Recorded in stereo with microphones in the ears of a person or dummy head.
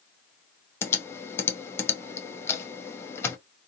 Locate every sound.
0.8 s typing on a keyboard: 10° left (ahead or behind), 0.6 m